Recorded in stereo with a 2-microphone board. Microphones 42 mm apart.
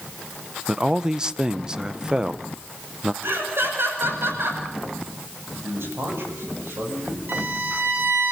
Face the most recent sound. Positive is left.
turn(degrees=-55)  # may be behind; listen again after turning